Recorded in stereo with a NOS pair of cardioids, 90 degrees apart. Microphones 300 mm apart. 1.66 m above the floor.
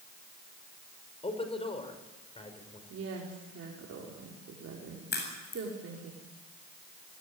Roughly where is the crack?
Ahead left.